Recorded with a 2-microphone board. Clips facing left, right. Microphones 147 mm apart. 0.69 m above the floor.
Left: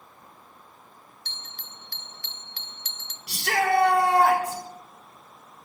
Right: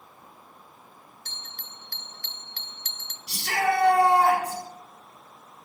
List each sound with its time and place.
1.2 s a bell: 45° right (ahead or behind), 0.8 m
3.3 s a shout: 70° left (ahead or behind), 3 m